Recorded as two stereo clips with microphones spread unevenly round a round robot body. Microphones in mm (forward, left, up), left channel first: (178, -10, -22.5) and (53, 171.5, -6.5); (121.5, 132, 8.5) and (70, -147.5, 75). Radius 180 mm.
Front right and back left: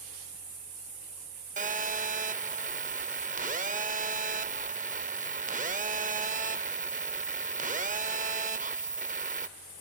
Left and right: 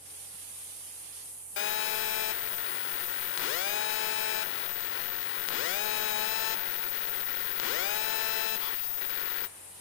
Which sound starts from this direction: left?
A phone buzzing, at 1.6 s.